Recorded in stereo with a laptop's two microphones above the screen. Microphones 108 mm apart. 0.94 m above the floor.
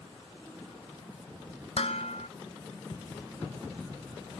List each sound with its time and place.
1.8 s dishes clattering: 65° left (ahead or behind)